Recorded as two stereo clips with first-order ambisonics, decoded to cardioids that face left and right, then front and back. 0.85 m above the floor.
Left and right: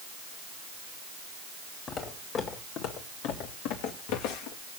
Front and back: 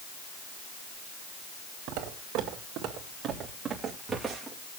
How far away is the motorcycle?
I don't hear a motorcycle.